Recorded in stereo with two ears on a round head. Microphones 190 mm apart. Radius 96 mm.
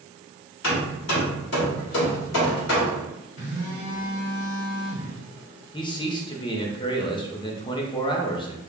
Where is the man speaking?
20° left (ahead or behind), 0.6 m.